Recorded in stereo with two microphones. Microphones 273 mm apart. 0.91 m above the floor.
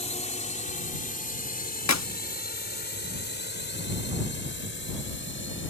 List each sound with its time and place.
0.0 s a drone: 25° left (ahead or behind); by 5.7 s 45° left (ahead or behind)
1.9 s a clap: 80° left